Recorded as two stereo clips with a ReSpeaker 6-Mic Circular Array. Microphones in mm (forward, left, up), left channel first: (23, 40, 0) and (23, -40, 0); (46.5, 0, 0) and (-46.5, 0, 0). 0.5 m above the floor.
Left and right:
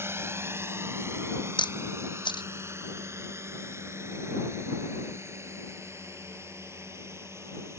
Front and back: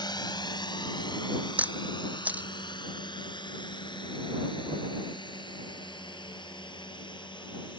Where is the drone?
35° right.